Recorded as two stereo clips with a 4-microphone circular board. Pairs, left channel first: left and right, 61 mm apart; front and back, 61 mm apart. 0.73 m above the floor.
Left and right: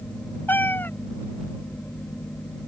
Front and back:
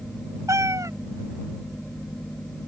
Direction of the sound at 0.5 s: 150° left.